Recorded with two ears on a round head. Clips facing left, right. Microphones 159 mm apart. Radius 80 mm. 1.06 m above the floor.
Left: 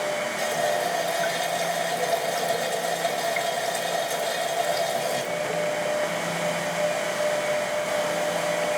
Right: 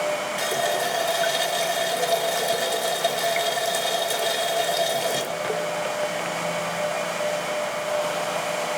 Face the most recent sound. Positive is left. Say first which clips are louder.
# left 1 dB
turn(degrees=-35)  # may be behind; listen again after turning